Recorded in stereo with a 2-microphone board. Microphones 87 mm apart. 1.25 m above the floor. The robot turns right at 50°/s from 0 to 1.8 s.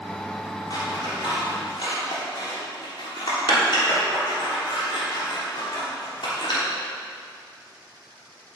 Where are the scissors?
55° left (ahead or behind), 3 m; by 6.6 s 70° left (ahead or behind), 3 m.